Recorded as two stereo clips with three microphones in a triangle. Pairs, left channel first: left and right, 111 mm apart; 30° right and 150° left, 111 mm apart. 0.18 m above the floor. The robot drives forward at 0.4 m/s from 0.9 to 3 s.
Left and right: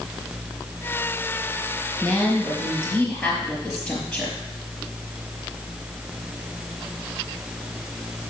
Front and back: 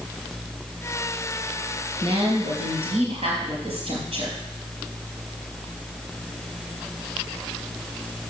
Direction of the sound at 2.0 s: 160° left.